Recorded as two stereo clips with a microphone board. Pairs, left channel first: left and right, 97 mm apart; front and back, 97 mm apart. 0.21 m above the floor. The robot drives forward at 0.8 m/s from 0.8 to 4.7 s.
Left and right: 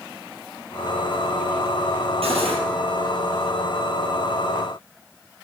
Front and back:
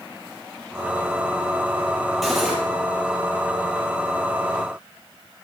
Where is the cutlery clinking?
90° right, 3.5 m; by 2.6 s 95° right, 3.5 m.